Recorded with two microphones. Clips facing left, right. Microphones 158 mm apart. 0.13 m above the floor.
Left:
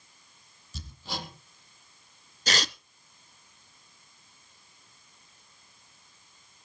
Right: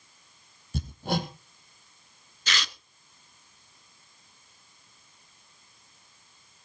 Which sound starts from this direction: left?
Tearing paper, at 2.5 s.